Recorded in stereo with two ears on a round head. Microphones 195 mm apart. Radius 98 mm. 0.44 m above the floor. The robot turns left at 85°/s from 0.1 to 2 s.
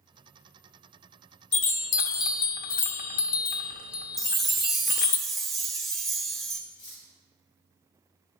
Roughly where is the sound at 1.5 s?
Left.